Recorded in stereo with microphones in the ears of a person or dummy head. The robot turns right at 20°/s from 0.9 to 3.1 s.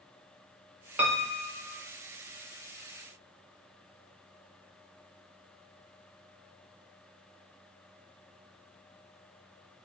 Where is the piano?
10° right (ahead or behind), 0.6 m; by 1.7 s 5° left (ahead or behind), 0.6 m.